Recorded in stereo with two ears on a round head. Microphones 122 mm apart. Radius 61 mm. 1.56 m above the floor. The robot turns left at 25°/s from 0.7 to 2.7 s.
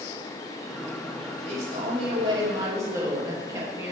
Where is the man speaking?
125° right, 3 m; by 3.9 s 155° right, 3 m.